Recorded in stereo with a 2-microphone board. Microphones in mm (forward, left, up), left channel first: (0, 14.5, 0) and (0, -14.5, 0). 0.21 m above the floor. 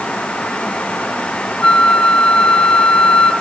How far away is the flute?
About 0.8 m.